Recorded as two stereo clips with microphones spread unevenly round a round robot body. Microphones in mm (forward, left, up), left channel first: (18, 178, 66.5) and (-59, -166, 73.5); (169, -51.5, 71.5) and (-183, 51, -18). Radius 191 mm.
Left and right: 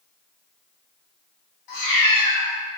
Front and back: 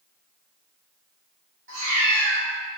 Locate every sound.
1.7 s a cat meowing: 100° left, 0.7 m